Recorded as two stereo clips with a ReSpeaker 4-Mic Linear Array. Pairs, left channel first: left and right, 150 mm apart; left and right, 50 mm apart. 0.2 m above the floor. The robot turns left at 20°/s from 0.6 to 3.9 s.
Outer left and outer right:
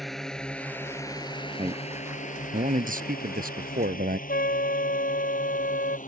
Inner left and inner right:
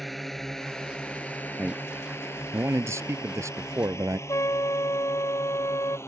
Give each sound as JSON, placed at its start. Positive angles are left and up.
{"t": 0.0, "sound": "a drone", "side_deg": 0}
{"t": 1.6, "sound": "a man speaking", "azimuth_deg": -45}
{"t": 4.3, "sound": "a trumpet", "side_deg": 80}